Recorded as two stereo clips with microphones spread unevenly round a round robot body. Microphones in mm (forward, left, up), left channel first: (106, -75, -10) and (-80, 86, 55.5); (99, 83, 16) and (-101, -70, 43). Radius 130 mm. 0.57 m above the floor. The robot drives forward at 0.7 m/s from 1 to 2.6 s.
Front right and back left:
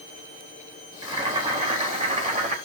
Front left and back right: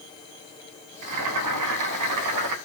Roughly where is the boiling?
Behind right.